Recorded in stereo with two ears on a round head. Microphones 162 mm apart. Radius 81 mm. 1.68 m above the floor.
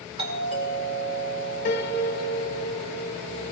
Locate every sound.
0.2 s a doorbell: 35° right (ahead or behind), 1.9 m
1.6 s a piano: 45° left (ahead or behind), 1.4 m